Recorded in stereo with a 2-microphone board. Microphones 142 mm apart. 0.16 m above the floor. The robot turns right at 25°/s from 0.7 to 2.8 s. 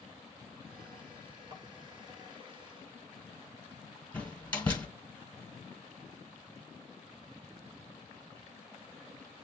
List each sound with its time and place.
1.5 s tapping: 35° right (ahead or behind), 0.9 m
4.1 s a door slam: 10° left (ahead or behind), 1.5 m